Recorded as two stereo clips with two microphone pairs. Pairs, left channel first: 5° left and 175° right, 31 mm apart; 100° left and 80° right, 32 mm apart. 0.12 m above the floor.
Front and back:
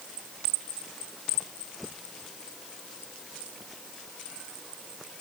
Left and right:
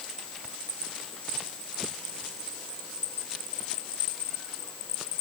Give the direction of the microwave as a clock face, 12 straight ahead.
I don't hear a microwave.